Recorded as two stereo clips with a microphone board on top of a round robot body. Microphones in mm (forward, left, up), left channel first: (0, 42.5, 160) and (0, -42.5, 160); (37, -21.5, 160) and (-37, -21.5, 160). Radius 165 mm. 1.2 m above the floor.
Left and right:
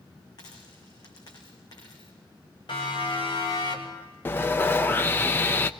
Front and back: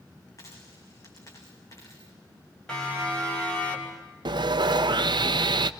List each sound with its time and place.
0.4 s a dropped coin: 50° left, 4.5 m
2.7 s a siren: 80° left, 6.5 m; by 4.1 s 70° left, 5 m
4.2 s sawing: 155° left, 0.7 m